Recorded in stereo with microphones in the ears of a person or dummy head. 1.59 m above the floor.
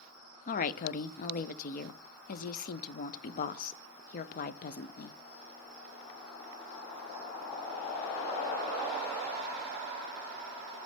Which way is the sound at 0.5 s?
50° left (ahead or behind).